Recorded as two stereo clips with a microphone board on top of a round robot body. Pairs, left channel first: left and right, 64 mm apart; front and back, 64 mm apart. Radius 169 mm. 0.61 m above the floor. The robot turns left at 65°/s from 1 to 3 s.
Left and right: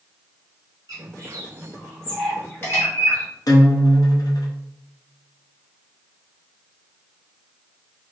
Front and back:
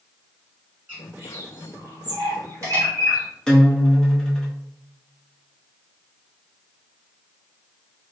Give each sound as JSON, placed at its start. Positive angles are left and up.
{"t": 0.9, "sound": "a bird", "azimuth_deg": -110, "distance_m": 1.7}
{"t": 3.5, "sound": "a guitar", "azimuth_deg": 80, "distance_m": 0.8}